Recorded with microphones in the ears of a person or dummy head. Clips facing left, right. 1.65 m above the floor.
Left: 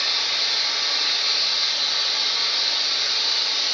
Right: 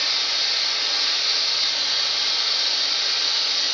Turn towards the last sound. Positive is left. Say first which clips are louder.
# left 1 dB
turn(degrees=-15)  # may be behind; listen again after turning